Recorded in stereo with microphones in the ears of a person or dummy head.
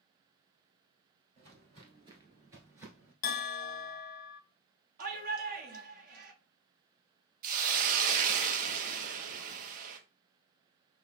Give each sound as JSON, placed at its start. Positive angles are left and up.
{"t": 1.4, "sound": "footsteps", "side_deg": -40, "distance_m": 2.0}
{"t": 3.2, "sound": "a bell", "side_deg": 50, "distance_m": 0.8}
{"t": 5.0, "sound": "a shout", "side_deg": -50, "distance_m": 1.3}
{"t": 7.4, "sound": "a hiss", "side_deg": -50, "distance_m": 0.7}